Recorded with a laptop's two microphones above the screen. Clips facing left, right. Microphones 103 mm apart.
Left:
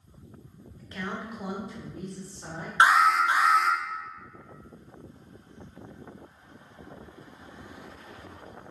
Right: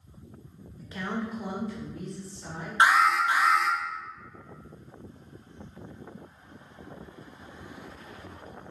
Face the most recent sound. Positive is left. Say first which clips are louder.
# left 1 dB
turn(degrees=25)  # may be behind; listen again after turning